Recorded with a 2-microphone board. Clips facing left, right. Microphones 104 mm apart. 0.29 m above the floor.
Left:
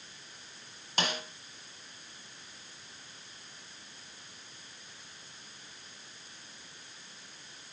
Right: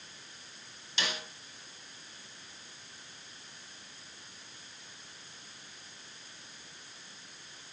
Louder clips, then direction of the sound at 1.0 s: Left 4 dB; 50° left (ahead or behind).